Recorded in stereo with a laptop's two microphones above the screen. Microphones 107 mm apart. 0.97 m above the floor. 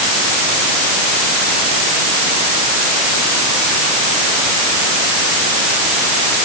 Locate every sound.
Only background noise.